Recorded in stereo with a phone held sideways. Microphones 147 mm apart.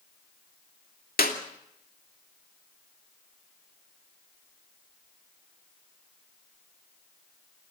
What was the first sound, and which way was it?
A clap, 80° left.